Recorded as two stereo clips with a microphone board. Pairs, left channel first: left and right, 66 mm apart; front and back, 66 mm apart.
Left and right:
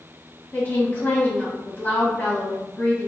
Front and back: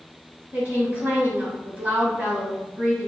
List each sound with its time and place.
0.5 s a woman speaking: 145° left, 1.7 m